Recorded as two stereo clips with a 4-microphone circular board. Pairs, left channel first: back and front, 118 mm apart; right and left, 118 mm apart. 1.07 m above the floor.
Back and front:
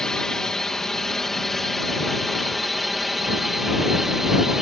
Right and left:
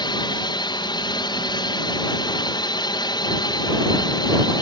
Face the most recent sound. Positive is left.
turn(degrees=-85)